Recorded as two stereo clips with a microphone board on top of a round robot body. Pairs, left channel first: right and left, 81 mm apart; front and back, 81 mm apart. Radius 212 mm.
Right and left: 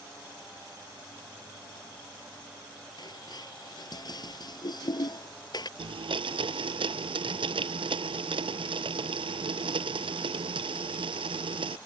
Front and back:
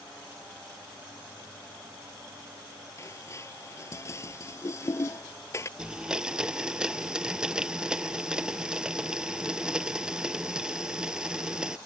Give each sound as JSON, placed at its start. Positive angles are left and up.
{"t": 3.0, "sound": "dishes clattering", "azimuth_deg": -55}
{"t": 5.8, "sound": "a blender", "azimuth_deg": 100}